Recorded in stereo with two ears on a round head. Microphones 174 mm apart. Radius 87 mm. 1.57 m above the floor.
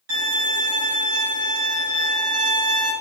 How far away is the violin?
About 1.8 m.